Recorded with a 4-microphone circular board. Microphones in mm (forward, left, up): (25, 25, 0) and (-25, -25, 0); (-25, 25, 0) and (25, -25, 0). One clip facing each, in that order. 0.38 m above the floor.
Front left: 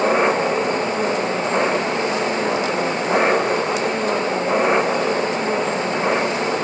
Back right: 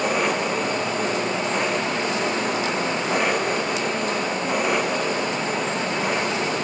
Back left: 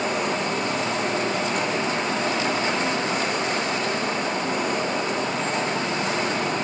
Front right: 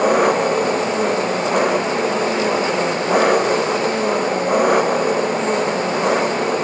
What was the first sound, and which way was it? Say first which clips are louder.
An engine running: front left 5 dB, front right 10 dB; 15° right.